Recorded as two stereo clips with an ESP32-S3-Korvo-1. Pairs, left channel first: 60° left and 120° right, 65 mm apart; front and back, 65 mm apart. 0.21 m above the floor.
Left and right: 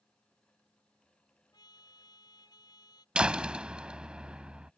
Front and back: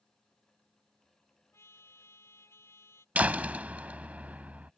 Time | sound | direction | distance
1.5 | a trumpet | 50° left | ?
3.1 | a door slam | 170° right | ?